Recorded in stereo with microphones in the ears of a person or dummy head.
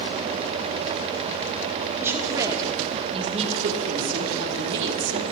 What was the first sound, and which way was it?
A woman speaking, 10° right (ahead or behind).